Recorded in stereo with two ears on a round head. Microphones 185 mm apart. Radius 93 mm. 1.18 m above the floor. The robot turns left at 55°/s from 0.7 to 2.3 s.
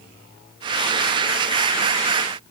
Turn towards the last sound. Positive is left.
No sound to turn to.